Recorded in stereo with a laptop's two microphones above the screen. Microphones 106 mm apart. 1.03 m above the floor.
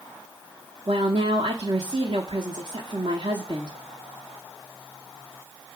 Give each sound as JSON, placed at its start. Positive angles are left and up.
{"t": 0.9, "sound": "a woman speaking", "side_deg": -55, "distance_m": 1.0}